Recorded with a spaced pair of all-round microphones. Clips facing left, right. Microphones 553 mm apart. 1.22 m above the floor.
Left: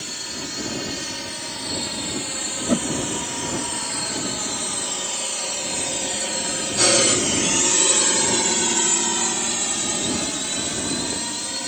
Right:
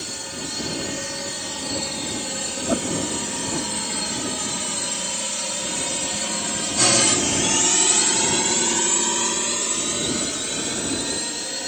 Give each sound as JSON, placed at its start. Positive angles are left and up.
{"t": 0.0, "sound": "a drone", "side_deg": -70}
{"t": 2.7, "sound": "a whoosh", "side_deg": 45}